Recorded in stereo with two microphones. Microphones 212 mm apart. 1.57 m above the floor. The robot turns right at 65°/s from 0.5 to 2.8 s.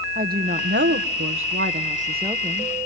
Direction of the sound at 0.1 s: 135° right.